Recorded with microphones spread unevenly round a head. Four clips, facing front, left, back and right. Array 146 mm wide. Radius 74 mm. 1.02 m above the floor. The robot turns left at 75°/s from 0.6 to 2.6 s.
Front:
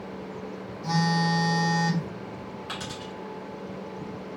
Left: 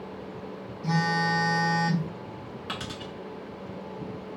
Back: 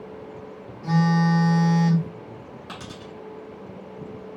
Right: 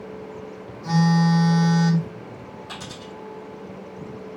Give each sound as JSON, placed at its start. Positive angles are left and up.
{"t": 0.8, "sound": "a phone buzzing", "azimuth_deg": -135, "distance_m": 1.1}
{"t": 2.7, "sound": "a dropped coin", "azimuth_deg": 125, "distance_m": 1.0}